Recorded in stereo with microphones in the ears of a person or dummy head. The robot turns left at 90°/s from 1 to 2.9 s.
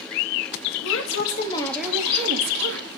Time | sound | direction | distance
0.8 | a woman speaking | 75° left | 3.5 m